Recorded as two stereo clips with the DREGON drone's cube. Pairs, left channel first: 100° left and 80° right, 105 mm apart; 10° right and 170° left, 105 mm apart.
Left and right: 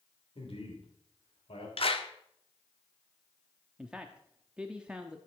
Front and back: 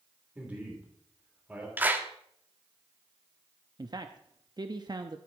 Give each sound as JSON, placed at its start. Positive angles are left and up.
{"t": 0.3, "sound": "a man speaking", "azimuth_deg": 95, "distance_m": 3.0}
{"t": 1.8, "sound": "a clap", "azimuth_deg": 100, "distance_m": 0.9}
{"t": 3.8, "sound": "a man speaking", "azimuth_deg": -155, "distance_m": 0.6}